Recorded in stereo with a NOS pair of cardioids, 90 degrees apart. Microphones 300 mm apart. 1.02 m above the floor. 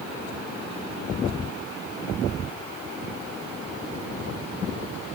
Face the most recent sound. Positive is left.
No sound to turn to.